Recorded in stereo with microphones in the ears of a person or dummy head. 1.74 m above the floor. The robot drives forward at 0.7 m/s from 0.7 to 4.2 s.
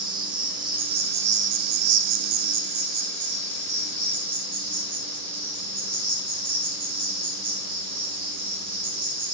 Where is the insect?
25° right (ahead or behind), 1.2 m; by 9.3 s 20° right (ahead or behind), 1.5 m.